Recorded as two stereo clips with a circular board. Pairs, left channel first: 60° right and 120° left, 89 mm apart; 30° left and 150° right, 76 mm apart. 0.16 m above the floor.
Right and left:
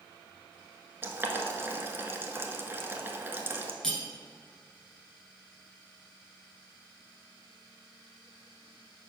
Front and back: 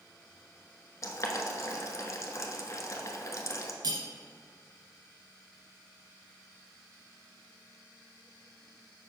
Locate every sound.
1.0 s boiling: 60° left, 0.9 m
3.8 s cutlery clinking: 145° right, 1.4 m